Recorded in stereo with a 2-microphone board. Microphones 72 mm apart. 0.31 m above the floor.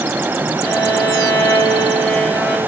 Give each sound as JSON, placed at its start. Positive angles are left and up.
{"t": 0.6, "sound": "a violin", "side_deg": 10, "distance_m": 7.0}